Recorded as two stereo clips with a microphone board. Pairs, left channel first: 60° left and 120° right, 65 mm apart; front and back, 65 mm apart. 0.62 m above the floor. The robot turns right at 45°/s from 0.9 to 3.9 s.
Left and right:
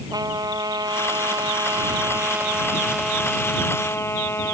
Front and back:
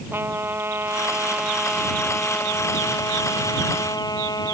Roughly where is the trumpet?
Behind right.